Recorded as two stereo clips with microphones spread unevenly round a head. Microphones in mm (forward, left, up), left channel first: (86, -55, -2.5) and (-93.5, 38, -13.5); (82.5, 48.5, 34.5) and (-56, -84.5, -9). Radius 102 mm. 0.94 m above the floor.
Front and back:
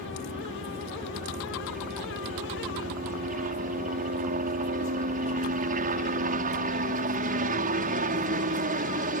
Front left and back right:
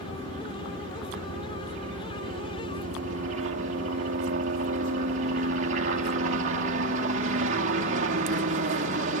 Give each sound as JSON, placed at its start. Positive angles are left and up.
{"t": 0.0, "sound": "a helicopter", "azimuth_deg": -165}